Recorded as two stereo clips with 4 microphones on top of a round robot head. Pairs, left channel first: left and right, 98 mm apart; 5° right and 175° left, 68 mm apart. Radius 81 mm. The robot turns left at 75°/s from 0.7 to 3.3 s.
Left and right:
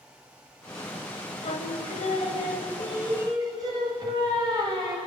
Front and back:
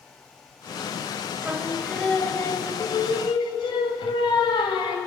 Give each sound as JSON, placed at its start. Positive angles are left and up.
{"t": 1.4, "sound": "singing", "azimuth_deg": 110, "distance_m": 1.9}